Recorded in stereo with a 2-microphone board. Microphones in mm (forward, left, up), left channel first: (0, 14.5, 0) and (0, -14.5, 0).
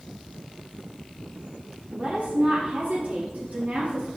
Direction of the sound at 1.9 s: 60° right (ahead or behind).